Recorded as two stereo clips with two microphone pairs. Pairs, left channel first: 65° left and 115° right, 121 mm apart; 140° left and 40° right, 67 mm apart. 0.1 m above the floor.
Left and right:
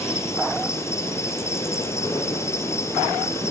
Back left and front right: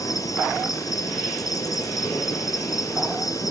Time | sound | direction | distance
0.0 | an insect | 130° left | 2 m